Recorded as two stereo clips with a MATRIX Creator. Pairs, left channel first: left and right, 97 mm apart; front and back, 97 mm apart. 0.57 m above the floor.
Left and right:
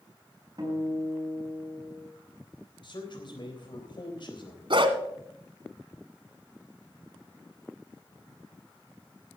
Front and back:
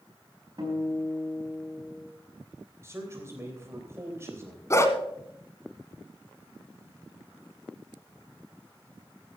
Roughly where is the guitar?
Behind right.